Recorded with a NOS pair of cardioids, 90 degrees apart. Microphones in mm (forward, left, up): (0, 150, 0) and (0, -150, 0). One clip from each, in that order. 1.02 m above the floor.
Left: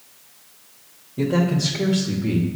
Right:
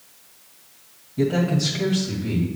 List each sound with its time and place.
1.2 s a man speaking: 5° left, 1.5 m; by 2.5 s 25° left, 2 m